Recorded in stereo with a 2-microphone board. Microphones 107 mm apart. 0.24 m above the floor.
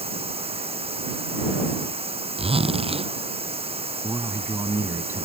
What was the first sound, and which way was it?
Running water, 65° right (ahead or behind).